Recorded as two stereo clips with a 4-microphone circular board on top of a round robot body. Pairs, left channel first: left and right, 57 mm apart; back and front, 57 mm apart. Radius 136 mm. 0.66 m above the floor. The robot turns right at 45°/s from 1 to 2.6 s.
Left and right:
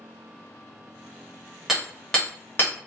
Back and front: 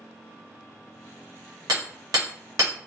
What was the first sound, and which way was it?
Hammering, 5° right.